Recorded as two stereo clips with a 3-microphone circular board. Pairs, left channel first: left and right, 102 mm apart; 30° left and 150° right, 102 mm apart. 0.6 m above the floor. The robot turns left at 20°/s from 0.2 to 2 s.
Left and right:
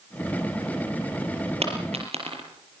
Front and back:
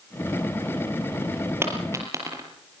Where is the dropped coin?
85° right, 5 m; by 2.4 s 90° right, 5 m.